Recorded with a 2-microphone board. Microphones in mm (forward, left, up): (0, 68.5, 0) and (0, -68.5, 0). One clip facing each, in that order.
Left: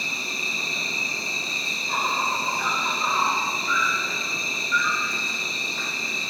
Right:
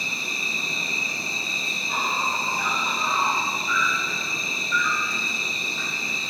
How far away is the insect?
About 0.8 m.